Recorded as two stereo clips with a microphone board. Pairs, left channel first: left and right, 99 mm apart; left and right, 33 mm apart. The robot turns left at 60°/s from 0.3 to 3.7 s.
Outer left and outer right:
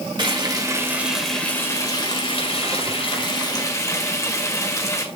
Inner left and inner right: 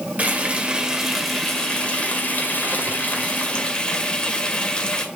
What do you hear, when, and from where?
0.2 s frying: 125° right, 1.7 m; by 5.0 s 35° left, 1.7 m